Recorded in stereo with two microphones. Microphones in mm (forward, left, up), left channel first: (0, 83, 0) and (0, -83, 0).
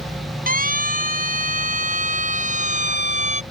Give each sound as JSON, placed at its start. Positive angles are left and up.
{"t": 0.5, "sound": "a siren", "side_deg": -55}